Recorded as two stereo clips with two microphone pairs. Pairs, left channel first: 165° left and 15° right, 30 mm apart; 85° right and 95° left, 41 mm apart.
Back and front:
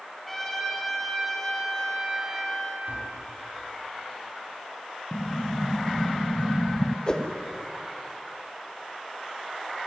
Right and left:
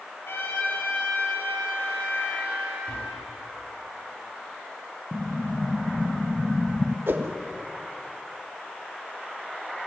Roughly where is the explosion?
Behind.